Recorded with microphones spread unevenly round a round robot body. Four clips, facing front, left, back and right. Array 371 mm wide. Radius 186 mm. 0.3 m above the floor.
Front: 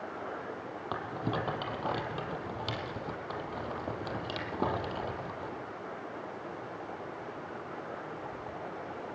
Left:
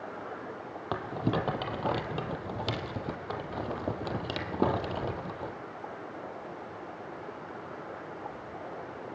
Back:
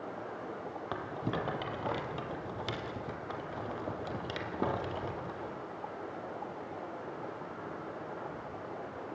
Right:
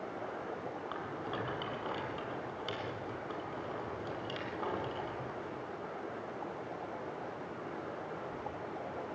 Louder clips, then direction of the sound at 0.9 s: Left 13 dB, front 2 dB; 90° left.